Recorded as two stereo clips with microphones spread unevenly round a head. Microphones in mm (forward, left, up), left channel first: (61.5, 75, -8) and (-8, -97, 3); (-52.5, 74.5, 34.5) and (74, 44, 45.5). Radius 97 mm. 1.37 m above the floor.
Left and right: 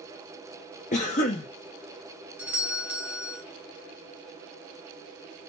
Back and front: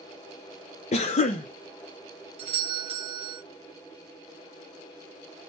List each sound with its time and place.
0.9 s a cough: 125° left, 0.5 m
2.4 s a doorbell: 30° right, 1.0 m